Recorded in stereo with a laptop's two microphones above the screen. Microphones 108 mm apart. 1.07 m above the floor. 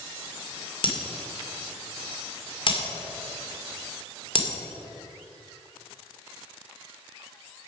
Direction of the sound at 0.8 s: 55° left (ahead or behind).